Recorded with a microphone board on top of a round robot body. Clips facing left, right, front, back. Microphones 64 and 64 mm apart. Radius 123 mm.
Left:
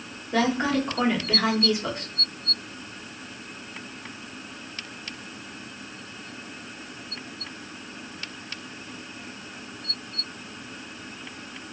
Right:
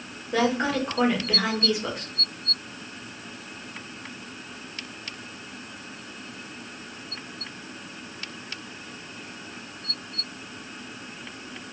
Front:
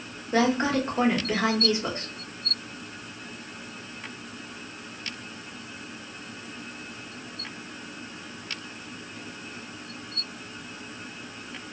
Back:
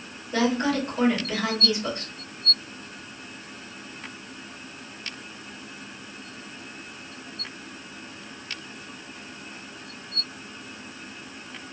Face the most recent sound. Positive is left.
turn(degrees=0)